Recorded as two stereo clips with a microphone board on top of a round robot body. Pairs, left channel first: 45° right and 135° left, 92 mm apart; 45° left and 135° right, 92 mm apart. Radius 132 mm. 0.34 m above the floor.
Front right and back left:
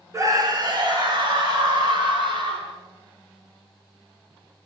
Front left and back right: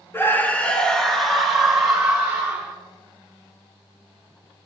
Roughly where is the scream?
Left.